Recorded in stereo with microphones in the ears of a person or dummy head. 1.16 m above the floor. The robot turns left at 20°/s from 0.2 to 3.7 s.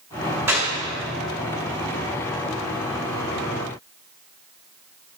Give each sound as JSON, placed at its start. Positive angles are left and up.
{"t": 0.5, "sound": "a clap", "side_deg": -15, "distance_m": 3.5}